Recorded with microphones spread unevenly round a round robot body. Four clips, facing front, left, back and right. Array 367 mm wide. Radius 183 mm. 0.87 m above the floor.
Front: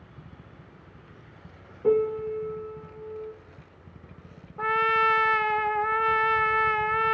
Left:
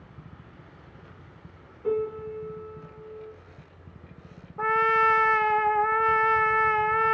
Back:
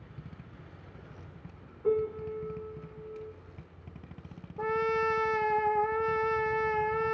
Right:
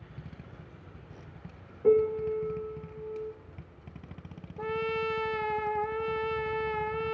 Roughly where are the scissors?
I don't hear scissors.